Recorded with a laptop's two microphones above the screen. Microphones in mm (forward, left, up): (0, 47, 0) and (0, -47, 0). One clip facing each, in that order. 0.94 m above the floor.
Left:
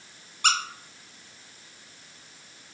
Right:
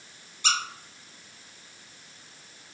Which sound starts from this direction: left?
A squeak, at 0.4 s.